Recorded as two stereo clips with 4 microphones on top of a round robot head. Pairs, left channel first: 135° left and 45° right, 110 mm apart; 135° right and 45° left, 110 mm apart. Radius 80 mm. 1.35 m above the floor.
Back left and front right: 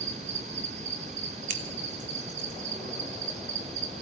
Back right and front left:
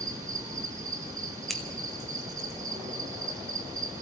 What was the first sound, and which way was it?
An insect, 20° right.